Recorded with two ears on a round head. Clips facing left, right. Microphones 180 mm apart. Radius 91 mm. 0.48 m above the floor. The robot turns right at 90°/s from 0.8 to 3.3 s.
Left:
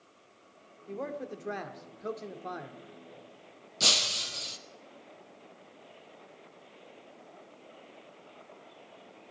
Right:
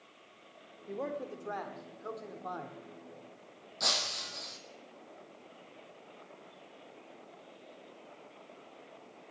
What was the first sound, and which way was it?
A man speaking, 15° right.